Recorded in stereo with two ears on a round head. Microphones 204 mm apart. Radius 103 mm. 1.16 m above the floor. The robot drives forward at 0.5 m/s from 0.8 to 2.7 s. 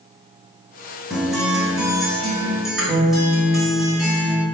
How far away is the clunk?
I don't hear a clunk.